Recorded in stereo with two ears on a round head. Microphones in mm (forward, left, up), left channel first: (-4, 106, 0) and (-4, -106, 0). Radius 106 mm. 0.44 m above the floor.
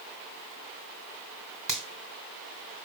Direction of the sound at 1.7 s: 5° right (ahead or behind).